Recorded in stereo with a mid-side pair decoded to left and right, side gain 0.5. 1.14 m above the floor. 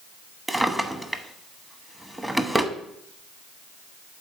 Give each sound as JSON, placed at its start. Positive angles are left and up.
{"t": 0.5, "sound": "a drawer", "azimuth_deg": -10, "distance_m": 1.0}